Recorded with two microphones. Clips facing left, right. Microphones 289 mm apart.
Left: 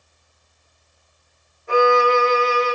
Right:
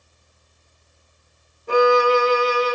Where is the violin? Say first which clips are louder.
Right 1 dB; 45° right (ahead or behind), 0.7 m.